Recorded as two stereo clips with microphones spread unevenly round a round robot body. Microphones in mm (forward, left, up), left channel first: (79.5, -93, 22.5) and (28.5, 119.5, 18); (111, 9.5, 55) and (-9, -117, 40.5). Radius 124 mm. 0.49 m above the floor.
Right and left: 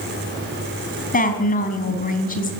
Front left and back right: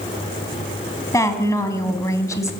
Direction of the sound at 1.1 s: 25° right.